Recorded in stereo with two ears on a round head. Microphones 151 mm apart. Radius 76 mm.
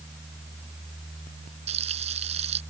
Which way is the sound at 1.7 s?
35° right (ahead or behind).